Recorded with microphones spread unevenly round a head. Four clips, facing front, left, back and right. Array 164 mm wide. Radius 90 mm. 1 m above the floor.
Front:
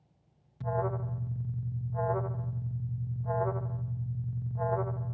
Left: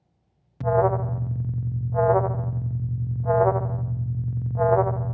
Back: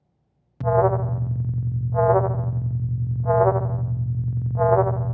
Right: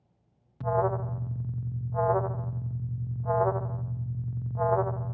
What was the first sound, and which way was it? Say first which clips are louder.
An alarm: left 6 dB, back 13 dB; 135° left.